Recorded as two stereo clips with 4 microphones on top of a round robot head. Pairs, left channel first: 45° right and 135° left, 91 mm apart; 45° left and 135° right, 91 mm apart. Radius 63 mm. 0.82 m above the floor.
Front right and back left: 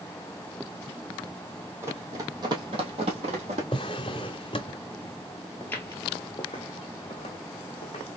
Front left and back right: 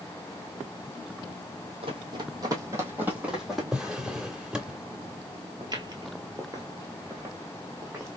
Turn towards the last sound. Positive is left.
turn(degrees=-70)